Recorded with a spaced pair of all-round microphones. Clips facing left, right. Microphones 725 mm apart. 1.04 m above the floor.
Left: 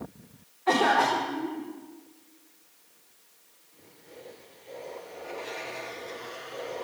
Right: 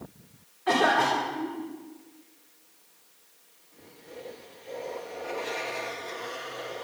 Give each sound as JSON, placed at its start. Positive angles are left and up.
{"t": 0.7, "sound": "a cough", "side_deg": -45, "distance_m": 3.0}